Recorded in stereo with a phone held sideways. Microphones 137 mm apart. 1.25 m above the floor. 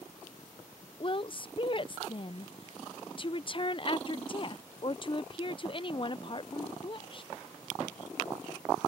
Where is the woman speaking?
40° left (ahead or behind).